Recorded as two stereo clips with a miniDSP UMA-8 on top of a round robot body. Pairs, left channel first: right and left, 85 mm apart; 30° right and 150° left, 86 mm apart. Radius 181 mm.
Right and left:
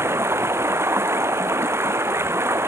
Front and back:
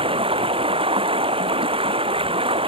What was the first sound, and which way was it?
Running water, 150° left.